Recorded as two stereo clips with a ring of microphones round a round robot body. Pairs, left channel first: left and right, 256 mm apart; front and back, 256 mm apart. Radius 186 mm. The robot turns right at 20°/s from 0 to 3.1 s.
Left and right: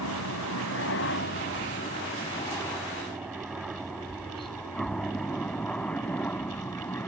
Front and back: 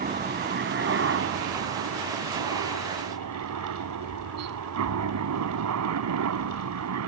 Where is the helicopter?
125° left; by 7.1 s 175° left.